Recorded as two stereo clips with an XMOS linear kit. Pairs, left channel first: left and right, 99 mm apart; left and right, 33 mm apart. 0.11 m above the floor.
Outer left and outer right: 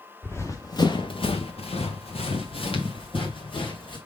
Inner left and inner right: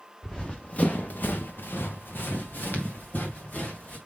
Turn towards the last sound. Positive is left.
turn(degrees=55)  # may be behind; listen again after turning